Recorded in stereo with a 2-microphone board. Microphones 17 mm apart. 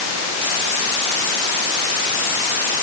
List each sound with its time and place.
Only background noise.